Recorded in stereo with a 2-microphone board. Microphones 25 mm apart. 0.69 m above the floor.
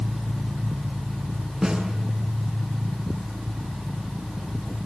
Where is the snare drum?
25° right (ahead or behind), 7.5 m.